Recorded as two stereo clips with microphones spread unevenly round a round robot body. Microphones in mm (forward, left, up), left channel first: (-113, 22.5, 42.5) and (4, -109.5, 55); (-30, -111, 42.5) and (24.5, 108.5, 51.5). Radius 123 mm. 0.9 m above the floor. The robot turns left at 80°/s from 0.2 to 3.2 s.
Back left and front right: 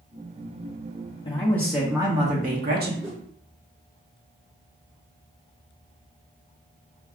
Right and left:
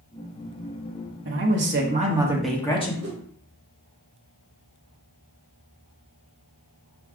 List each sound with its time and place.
1.2 s a man speaking: 80° left, 1.2 m; by 2.9 s 55° right, 1.2 m
3.0 s a whoosh: 40° left, 0.8 m; by 3.2 s 25° left, 0.8 m